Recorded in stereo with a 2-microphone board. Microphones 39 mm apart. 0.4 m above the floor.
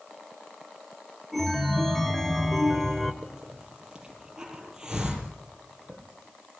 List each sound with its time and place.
1.3 s a chime: centre (ahead or behind), 1.6 m
3.2 s a hiss: 15° right (ahead or behind), 5.5 m